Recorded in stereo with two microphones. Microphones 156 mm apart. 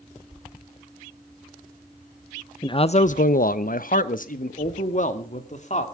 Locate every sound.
2.6 s a man speaking: 25° left (ahead or behind), 0.6 m; by 5.8 s 50° left (ahead or behind), 2.5 m